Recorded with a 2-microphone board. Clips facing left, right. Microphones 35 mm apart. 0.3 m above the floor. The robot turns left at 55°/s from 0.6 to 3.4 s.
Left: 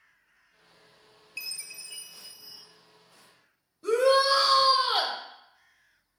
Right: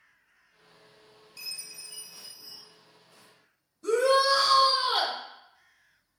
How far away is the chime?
About 0.5 m.